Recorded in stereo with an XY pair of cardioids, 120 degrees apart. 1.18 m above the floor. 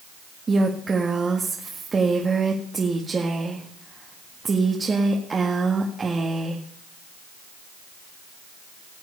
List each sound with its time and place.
0.5 s a woman speaking: 30° right, 1.8 m